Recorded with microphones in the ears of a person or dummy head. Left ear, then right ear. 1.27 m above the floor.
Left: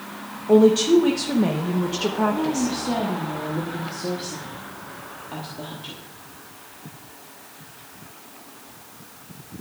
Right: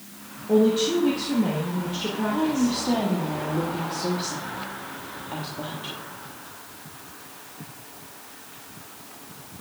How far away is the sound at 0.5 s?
About 0.9 m.